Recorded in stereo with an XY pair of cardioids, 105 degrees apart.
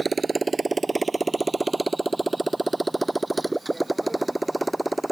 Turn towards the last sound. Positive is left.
turn(degrees=-5)